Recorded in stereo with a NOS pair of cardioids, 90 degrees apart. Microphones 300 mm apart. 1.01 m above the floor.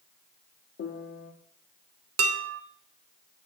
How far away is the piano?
About 1.2 m.